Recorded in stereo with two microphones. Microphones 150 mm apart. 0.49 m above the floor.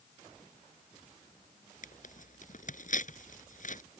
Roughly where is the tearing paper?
Left.